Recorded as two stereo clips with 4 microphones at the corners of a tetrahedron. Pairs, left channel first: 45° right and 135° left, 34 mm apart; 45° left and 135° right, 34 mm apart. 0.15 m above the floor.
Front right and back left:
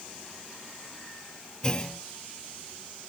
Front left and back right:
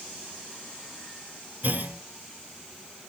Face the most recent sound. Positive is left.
turn(degrees=-105)